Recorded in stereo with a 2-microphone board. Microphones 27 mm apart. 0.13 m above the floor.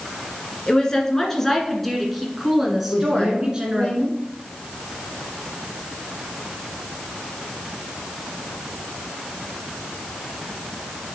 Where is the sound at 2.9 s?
45° left (ahead or behind), 3.5 m.